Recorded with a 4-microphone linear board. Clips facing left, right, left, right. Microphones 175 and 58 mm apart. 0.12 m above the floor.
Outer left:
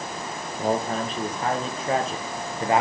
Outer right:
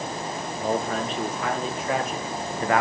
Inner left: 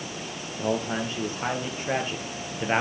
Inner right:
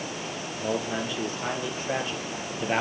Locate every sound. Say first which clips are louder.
0.6 s a man speaking: outer left 2 dB, inner left 2 dB; 40° left (ahead or behind), 3.5 m; by 2.8 s 25° left (ahead or behind), 3 m